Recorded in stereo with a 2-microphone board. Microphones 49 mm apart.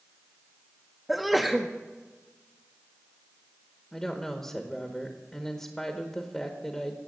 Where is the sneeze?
Centre (ahead or behind), 0.6 m.